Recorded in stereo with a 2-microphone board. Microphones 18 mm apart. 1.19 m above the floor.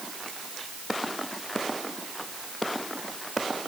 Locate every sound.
Only background noise.